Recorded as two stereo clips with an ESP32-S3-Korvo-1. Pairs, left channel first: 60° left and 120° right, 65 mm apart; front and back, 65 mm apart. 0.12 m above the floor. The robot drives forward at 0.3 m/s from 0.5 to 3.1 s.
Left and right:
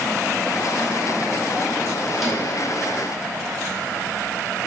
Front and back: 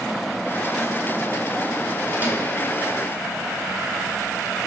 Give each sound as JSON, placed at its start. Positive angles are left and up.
{"t": 2.1, "sound": "a microwave", "azimuth_deg": 145, "distance_m": 1.0}